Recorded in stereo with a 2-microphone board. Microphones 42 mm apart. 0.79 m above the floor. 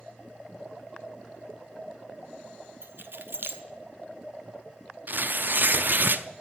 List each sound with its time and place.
2.8 s keys jangling: 65° right (ahead or behind), 0.8 m
5.1 s tearing paper: 55° right (ahead or behind), 0.5 m